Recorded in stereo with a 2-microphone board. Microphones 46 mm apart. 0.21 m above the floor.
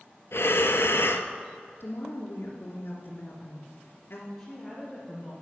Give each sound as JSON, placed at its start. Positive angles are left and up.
{"t": 0.3, "sound": "breathing", "side_deg": 75, "distance_m": 0.7}
{"t": 1.8, "sound": "a woman speaking", "side_deg": 55, "distance_m": 2.5}
{"t": 4.4, "sound": "a woman speaking", "side_deg": 5, "distance_m": 3.5}